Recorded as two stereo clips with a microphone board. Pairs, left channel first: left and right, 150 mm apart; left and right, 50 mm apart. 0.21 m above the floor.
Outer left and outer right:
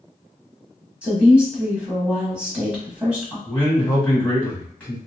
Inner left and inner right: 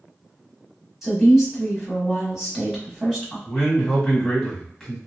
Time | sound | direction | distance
1.0 | a woman speaking | 10° right (ahead or behind) | 1.2 m
3.5 | a man speaking | 10° left (ahead or behind) | 1.6 m